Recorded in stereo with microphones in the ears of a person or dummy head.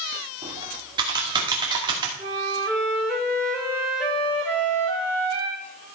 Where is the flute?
5° left (ahead or behind), 3 m.